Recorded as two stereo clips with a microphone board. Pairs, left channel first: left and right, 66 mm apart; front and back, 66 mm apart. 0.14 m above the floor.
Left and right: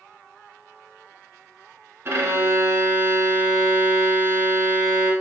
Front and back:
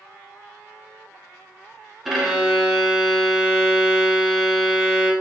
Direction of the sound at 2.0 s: 95° right.